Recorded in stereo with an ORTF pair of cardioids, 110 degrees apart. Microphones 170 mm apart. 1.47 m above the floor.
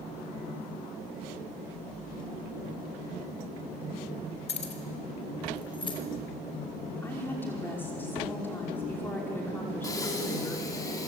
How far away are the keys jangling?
About 3.5 m.